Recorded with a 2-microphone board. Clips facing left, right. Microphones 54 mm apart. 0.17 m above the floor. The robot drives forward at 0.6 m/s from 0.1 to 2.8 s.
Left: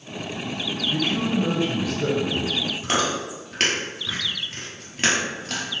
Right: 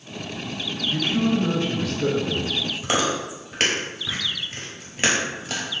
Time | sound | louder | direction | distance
0.9 | a man speaking | right 2 dB | 15° left (ahead or behind) | 1.1 m
2.8 | chewing | right 1 dB | 5° right (ahead or behind) | 1.2 m